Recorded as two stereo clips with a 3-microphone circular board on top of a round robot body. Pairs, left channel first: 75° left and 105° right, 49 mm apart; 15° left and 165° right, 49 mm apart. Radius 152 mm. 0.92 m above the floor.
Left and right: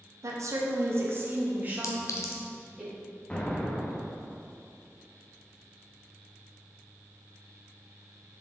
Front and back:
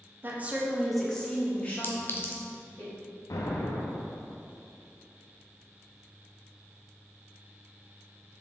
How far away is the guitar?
I don't hear a guitar.